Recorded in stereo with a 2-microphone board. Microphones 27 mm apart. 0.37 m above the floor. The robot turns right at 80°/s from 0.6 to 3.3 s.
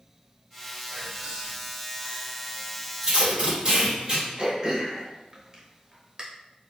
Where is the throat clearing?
30° right (ahead or behind), 0.7 m.